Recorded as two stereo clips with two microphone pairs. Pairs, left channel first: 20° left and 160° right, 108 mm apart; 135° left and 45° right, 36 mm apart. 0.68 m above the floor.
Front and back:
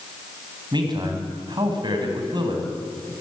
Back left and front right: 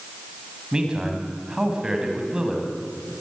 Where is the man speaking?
115° right, 4 m.